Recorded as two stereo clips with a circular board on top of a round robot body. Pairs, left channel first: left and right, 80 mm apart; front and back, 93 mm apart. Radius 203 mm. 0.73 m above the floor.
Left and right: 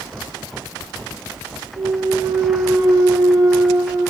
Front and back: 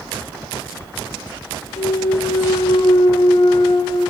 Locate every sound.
1.8 s a clunk: 40° right, 0.7 m